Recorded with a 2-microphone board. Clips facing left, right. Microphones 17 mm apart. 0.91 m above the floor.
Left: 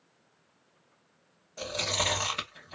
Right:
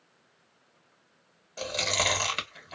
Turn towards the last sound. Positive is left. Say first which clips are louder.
# right 2 dB
turn(degrees=-35)  # may be behind; listen again after turning